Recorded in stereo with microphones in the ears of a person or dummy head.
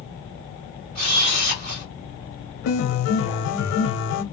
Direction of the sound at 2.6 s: 80° left.